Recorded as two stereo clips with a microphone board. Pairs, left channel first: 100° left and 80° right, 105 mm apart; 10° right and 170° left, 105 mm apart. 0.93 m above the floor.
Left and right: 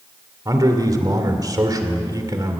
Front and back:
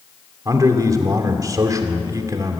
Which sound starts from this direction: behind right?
A man speaking, at 0.5 s.